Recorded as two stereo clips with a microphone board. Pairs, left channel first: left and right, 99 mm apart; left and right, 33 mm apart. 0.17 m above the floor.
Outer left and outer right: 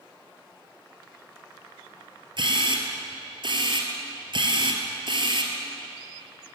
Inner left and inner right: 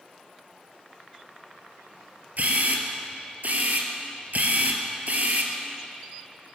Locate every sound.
2.4 s a camera shutter: 55° right (ahead or behind), 2.5 m